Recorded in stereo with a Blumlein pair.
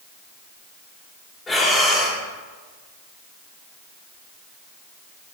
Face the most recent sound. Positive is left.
turn(degrees=15)